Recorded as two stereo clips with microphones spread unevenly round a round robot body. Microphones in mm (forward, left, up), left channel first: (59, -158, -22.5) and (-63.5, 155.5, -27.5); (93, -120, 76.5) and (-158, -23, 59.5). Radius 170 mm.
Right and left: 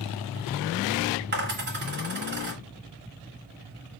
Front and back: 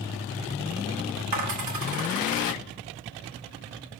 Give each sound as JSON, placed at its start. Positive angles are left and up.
{"t": 1.3, "sound": "a dropped coin", "azimuth_deg": 170, "distance_m": 1.8}